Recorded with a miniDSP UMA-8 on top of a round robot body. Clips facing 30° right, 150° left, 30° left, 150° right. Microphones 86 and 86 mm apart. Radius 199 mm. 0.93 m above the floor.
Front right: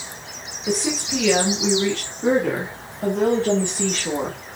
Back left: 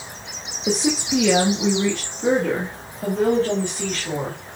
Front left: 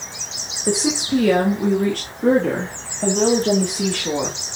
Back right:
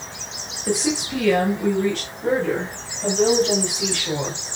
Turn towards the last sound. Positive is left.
turn(degrees=30)